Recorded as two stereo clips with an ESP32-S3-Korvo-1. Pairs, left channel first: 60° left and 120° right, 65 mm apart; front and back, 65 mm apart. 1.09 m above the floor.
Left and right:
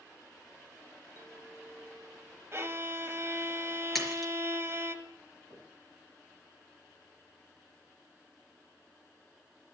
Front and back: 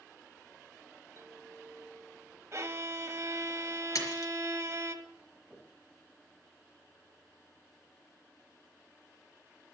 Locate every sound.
1.2 s a clink: 145° right, 2 m
2.5 s a violin: 155° right, 1.2 m
4.0 s a splash: 30° right, 4 m
5.5 s knocking: 105° right, 6.5 m